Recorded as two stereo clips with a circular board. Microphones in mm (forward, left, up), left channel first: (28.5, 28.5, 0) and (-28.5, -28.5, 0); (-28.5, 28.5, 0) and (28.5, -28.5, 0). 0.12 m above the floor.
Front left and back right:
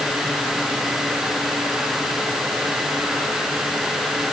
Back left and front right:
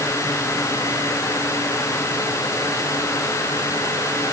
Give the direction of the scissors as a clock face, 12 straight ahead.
I don't hear scissors.